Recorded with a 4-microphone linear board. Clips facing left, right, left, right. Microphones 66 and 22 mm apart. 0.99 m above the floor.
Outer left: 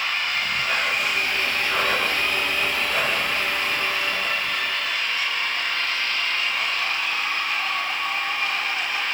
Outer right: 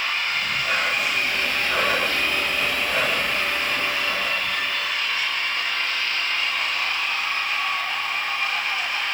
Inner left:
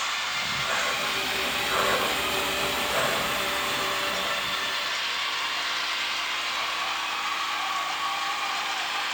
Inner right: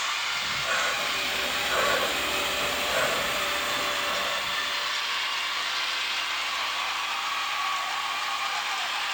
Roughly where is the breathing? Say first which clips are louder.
Even, even; centre.